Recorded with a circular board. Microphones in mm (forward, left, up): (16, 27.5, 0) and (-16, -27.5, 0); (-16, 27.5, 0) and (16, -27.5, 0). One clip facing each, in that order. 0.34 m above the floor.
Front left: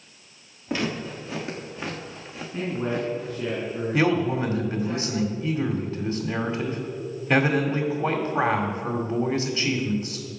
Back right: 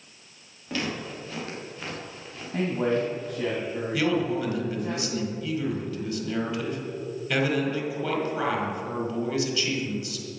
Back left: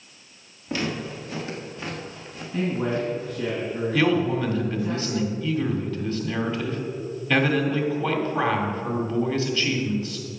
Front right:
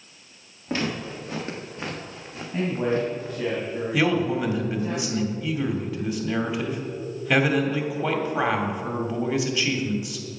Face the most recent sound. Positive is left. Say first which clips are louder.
# front left 3 dB, back left 1 dB
turn(degrees=15)